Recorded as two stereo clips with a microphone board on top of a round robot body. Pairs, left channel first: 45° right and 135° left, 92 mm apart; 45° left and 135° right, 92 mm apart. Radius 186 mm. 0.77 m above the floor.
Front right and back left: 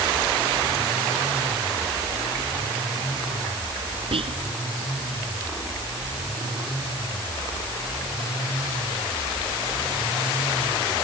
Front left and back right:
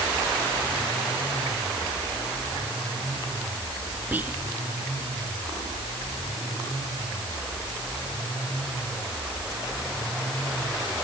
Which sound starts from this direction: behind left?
Whispering, at 4.1 s.